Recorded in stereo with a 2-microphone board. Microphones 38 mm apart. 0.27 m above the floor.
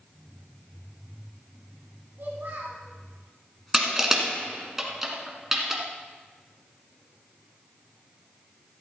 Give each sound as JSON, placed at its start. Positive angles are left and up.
{"t": 2.2, "sound": "a child speaking", "side_deg": -55, "distance_m": 1.2}
{"t": 3.7, "sound": "crushing", "side_deg": -10, "distance_m": 1.6}